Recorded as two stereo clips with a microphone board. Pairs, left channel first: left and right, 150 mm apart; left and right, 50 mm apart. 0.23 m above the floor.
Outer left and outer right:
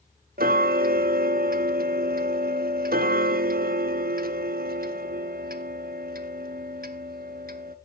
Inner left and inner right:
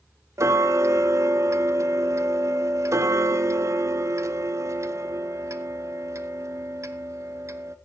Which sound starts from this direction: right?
Ticking, at 0.4 s.